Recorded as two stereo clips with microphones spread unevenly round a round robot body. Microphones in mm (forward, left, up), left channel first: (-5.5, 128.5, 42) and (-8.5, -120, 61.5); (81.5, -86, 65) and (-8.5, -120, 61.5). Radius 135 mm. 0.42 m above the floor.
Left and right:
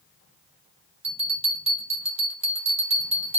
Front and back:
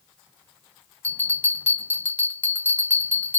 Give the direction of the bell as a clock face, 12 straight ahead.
1 o'clock.